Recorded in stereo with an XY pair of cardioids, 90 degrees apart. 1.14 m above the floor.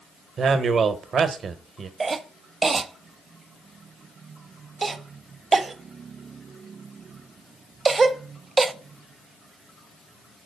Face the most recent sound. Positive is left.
turn(degrees=-40)